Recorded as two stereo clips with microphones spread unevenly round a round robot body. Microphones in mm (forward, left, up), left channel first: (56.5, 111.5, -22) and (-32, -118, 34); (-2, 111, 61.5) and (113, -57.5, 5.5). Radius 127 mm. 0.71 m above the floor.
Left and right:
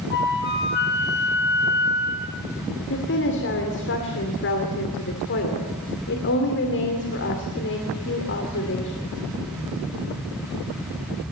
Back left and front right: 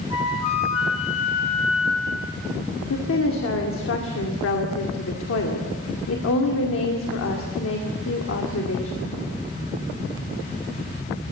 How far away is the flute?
About 2.5 m.